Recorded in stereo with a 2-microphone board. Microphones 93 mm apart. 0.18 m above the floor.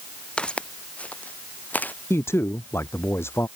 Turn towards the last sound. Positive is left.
turn(degrees=30)  # may be behind; listen again after turning